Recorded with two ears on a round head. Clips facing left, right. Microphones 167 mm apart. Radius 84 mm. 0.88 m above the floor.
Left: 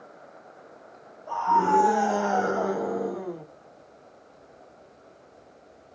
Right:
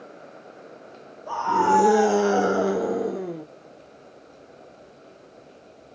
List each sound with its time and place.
1.3 s a scream: 65° right (ahead or behind), 3.5 m; by 3.5 s 25° right (ahead or behind), 2.5 m